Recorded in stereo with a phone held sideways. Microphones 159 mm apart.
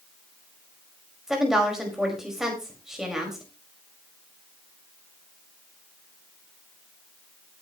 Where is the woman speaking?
5° right (ahead or behind), 5 m.